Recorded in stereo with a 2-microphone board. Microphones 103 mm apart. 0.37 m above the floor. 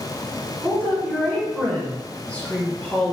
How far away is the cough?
I don't hear a cough.